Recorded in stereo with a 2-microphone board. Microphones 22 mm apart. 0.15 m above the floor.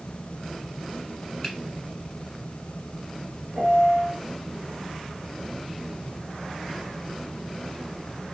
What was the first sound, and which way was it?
A finger snap, 30° left (ahead or behind).